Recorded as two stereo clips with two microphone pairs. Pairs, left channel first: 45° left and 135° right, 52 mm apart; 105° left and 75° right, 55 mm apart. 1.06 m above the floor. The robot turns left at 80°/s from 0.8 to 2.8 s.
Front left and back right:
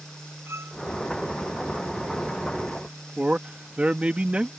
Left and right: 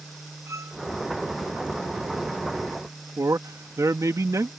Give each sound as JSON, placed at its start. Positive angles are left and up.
{"t": 0.5, "sound": "a violin", "azimuth_deg": -100}
{"t": 3.2, "sound": "a man speaking", "azimuth_deg": -70}